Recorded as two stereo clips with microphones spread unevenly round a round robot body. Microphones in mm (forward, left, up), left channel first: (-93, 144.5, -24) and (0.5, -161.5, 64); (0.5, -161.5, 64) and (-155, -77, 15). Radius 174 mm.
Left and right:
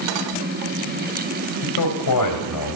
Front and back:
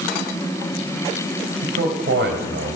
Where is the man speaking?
125° left, 2.5 m.